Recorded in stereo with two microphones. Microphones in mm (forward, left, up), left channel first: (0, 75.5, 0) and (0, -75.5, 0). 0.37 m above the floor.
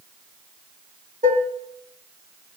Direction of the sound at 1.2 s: 65° right (ahead or behind).